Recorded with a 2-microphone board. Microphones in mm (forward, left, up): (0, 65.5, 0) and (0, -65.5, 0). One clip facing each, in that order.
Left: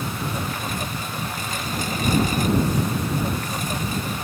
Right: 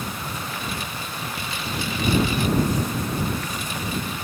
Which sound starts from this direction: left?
A lawn mower, at 0.0 s.